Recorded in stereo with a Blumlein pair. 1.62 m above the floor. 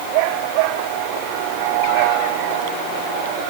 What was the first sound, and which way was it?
Only background noise.